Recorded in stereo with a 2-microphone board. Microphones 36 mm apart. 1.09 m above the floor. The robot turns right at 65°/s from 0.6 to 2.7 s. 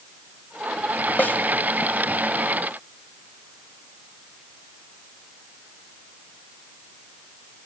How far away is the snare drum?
About 1.2 m.